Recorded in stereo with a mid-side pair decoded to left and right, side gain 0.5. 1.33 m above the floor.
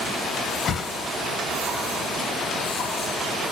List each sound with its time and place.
0.7 s a whoosh: 55° left, 1.5 m